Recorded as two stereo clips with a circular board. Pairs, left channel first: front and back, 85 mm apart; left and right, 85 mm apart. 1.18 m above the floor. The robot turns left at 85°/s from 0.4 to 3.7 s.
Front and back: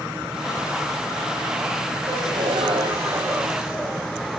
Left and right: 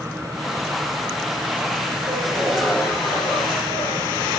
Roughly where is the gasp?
Behind right.